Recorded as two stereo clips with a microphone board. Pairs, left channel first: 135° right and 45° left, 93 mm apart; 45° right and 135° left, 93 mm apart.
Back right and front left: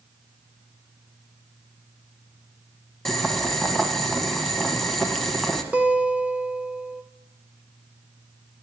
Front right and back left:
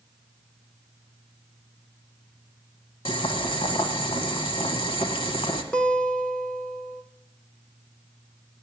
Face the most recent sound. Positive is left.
turn(degrees=5)